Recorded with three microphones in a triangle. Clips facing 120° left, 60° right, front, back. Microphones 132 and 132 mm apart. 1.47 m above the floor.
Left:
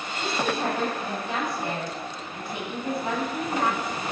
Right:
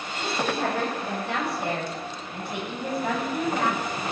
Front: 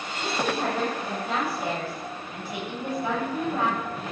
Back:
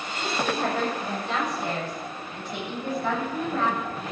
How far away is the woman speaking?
About 8.5 m.